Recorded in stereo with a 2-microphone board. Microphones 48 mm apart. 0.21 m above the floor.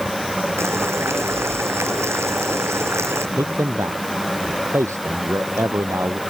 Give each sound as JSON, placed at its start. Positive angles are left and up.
{"t": 0.6, "sound": "boiling", "side_deg": -65}
{"t": 3.4, "sound": "a man speaking", "side_deg": -80}